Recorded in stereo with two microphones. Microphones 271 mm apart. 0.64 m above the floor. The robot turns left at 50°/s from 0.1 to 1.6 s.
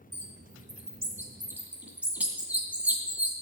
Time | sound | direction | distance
0.1 | a bird | 80° right | 2 m